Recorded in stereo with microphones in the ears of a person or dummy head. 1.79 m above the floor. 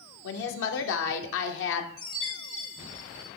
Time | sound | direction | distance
0.2 | a woman speaking | 70° left (ahead or behind) | 0.8 m
2.0 | a chime | 40° left (ahead or behind) | 2 m